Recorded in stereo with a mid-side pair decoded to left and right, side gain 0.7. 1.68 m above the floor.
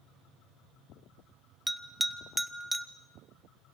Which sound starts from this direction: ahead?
A bell, at 1.7 s.